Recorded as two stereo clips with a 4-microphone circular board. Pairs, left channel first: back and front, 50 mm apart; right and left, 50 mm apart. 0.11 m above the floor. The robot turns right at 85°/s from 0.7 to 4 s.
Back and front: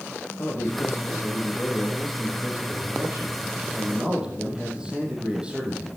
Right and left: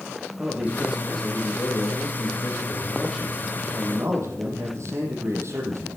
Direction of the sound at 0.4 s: 155° left.